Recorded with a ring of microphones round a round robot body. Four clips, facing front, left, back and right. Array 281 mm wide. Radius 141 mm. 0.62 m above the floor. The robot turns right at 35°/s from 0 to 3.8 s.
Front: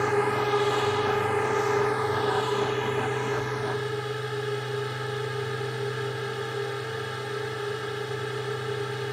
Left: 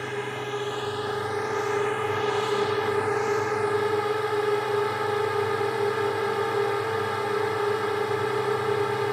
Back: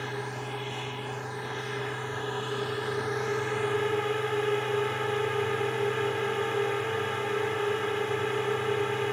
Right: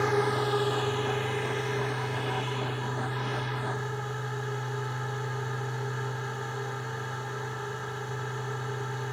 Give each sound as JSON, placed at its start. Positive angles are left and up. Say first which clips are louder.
{"t": 0.0, "sound": "a drone", "louder": "right 5 dB, front 11 dB", "azimuth_deg": -25}